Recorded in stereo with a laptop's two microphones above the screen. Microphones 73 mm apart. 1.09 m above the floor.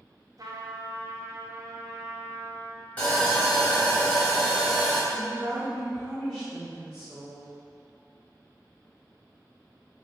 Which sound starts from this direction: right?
A trumpet, at 0.4 s.